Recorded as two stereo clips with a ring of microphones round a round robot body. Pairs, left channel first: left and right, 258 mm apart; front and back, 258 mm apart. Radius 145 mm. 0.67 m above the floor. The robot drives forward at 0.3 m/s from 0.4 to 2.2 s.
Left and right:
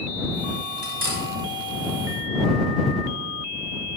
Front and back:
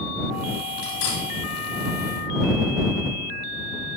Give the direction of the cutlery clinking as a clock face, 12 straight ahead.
1 o'clock.